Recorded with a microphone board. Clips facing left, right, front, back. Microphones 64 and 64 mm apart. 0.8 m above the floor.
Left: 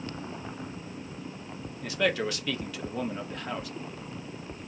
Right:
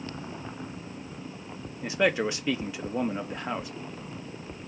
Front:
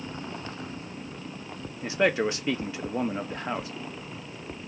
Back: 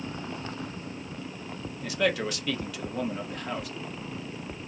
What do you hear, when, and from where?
1.8 s a man speaking: 40° right, 0.6 m